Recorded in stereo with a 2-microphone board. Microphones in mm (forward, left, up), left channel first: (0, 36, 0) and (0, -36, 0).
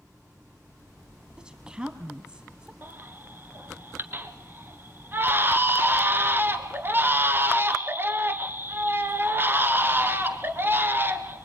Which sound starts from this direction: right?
A baby crying, at 2.8 s.